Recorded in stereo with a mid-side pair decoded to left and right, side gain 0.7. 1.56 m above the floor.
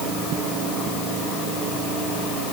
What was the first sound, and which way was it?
Only background noise.